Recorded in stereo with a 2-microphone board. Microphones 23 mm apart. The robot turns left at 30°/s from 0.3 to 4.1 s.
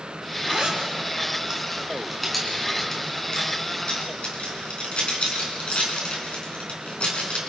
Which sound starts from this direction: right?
A zipper, at 0.5 s.